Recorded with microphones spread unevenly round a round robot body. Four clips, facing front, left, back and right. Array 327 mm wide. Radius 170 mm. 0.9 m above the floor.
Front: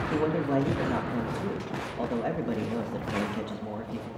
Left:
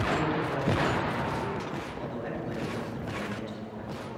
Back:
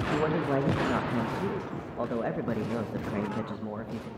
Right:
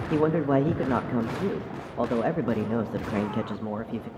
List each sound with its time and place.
0.1 s a man speaking: 85° right, 1.2 m